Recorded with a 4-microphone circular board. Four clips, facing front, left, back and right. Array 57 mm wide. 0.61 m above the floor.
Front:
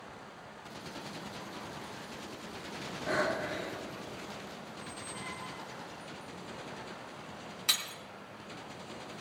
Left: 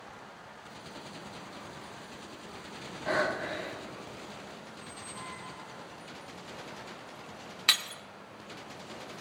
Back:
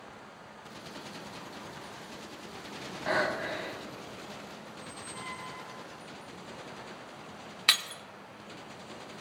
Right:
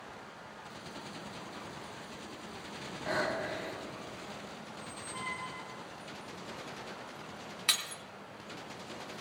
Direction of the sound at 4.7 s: 85° right.